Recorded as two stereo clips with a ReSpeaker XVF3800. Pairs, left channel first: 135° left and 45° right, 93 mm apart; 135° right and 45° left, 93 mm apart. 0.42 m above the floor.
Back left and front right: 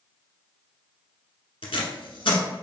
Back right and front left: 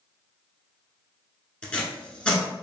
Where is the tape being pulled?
150° left, 0.8 m.